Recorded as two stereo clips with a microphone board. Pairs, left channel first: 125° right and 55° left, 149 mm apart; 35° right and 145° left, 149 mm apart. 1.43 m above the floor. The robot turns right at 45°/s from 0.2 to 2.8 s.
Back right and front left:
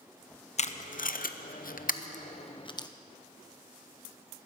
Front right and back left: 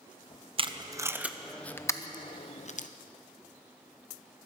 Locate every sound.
0.6 s tape being pulled: 165° right, 0.7 m; by 2.9 s 65° right, 0.7 m